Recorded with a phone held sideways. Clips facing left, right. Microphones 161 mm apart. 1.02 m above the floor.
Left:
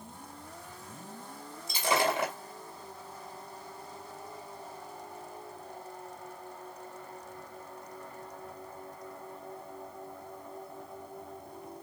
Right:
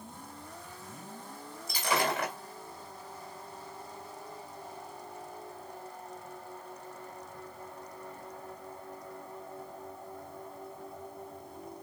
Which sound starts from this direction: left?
Breaking glass, at 1.7 s.